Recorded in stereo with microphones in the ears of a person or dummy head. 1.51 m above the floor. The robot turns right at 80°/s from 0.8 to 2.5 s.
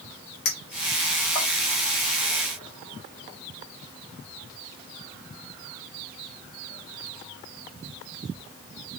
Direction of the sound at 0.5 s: 65° left (ahead or behind).